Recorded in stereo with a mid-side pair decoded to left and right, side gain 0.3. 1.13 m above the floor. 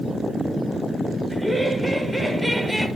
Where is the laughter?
10° right, 4.5 m.